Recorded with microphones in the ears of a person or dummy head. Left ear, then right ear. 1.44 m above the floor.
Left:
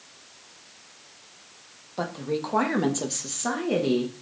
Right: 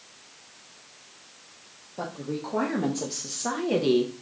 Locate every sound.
2.0 s a woman speaking: 50° left (ahead or behind), 1.3 m; by 4.1 s 25° right (ahead or behind), 0.9 m